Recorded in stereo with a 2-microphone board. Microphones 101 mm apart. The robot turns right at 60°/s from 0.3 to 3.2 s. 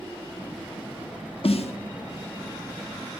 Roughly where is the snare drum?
Left.